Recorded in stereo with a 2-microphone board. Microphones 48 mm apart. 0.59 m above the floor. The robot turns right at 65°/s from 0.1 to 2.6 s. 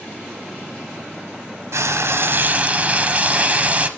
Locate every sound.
1.7 s frying: 90° right, 0.9 m; by 3.9 s 30° right, 0.9 m